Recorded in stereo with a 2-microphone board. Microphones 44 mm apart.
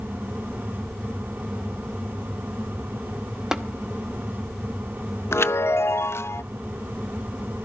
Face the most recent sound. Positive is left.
turn(degrees=75)  # may be behind; listen again after turning